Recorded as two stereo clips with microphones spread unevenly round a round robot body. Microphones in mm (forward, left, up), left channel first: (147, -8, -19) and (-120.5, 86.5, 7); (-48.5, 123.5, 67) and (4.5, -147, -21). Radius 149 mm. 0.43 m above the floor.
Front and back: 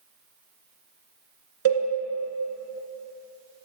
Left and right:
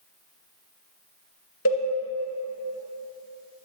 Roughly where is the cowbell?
Behind left.